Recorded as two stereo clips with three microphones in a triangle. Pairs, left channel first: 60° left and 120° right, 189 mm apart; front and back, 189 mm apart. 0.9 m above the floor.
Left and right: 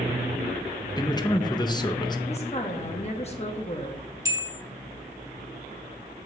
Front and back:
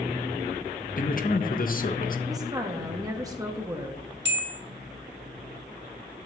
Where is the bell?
170° left, 1.1 m.